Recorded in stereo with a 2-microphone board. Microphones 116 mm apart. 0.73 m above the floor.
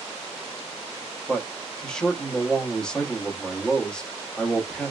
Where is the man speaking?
5° left (ahead or behind), 1.2 m.